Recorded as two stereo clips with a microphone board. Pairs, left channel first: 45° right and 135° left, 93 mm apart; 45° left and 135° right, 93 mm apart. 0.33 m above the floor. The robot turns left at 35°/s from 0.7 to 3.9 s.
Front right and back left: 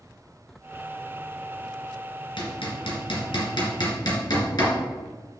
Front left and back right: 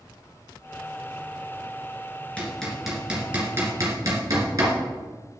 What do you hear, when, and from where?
2.4 s hammering: 30° right, 2.5 m; by 4.8 s 85° right, 2.5 m